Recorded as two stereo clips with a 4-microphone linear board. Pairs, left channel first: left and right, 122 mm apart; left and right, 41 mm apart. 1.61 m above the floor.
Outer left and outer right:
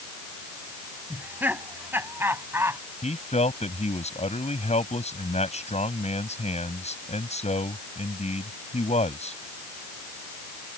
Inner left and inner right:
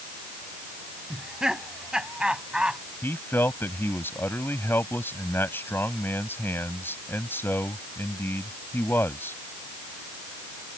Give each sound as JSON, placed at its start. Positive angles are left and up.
{"t": 1.1, "sound": "laughter", "side_deg": -15}
{"t": 3.0, "sound": "a man speaking", "side_deg": 75}